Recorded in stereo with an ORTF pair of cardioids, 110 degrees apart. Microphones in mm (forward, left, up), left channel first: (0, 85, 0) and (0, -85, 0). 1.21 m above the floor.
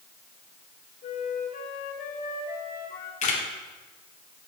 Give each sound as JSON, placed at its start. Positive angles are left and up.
{"t": 1.0, "sound": "a flute", "azimuth_deg": 55, "distance_m": 1.7}
{"t": 3.2, "sound": "a camera shutter", "azimuth_deg": 45, "distance_m": 2.5}